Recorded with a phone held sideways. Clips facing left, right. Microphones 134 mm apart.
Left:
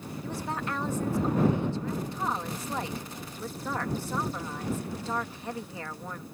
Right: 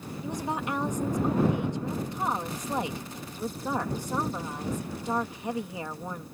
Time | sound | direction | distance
0.2 | a woman speaking | 20° right (ahead or behind) | ?